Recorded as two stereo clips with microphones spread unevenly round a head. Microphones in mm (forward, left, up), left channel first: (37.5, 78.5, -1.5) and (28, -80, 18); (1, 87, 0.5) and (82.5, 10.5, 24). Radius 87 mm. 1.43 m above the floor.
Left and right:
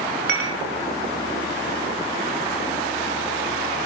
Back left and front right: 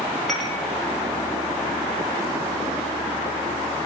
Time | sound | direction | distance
0.3 | dishes clattering | 130° right | 1.2 m